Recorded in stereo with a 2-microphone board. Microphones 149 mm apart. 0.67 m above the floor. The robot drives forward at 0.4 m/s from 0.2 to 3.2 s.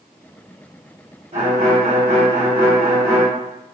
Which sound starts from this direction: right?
A violin, at 1.3 s.